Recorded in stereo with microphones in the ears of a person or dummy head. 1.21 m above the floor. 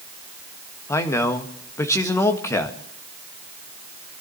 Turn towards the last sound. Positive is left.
turn(degrees=10)  # may be behind; listen again after turning